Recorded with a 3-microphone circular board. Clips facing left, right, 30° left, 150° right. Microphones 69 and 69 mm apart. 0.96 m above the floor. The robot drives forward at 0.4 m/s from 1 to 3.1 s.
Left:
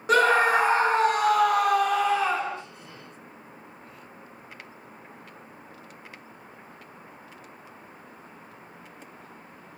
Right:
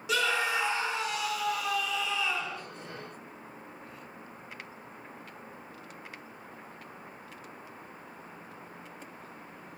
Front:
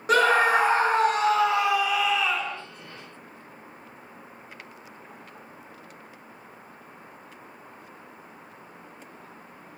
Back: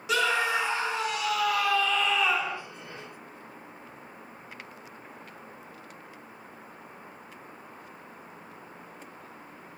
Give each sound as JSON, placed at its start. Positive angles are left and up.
{"t": 0.1, "sound": "a scream", "azimuth_deg": 60, "distance_m": 0.6}